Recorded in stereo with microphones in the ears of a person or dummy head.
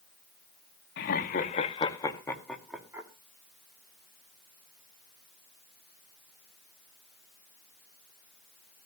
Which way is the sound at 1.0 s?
70° left (ahead or behind).